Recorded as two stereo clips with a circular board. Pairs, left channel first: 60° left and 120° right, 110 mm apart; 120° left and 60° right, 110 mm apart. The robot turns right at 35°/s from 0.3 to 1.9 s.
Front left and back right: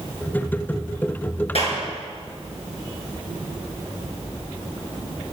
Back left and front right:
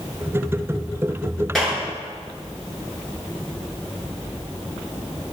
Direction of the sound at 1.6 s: 35° left.